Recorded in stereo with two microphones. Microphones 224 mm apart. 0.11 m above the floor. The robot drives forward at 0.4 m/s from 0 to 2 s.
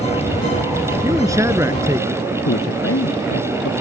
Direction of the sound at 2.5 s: 80° left.